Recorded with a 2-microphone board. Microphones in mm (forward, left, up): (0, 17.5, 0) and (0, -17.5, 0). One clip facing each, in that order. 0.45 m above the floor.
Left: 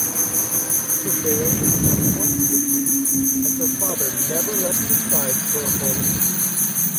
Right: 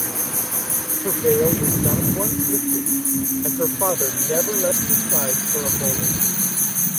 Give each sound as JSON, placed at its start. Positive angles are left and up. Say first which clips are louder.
{"t": 0.0, "sound": "an insect", "louder": "left 2 dB", "side_deg": -40}
{"t": 1.0, "sound": "a woman speaking", "louder": "right 5 dB", "side_deg": -45}